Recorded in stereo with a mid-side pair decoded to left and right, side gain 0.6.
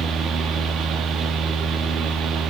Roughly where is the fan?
Ahead right.